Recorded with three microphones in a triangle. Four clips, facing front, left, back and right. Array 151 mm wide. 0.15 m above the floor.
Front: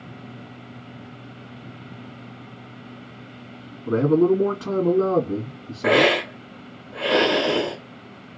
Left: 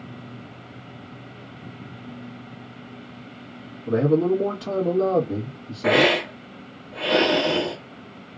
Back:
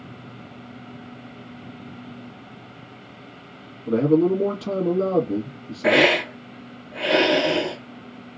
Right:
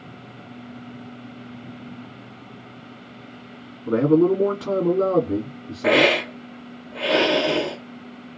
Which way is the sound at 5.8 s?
5° left.